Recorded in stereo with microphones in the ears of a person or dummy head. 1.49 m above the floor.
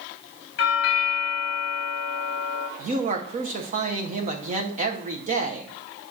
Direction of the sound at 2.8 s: 40° right (ahead or behind).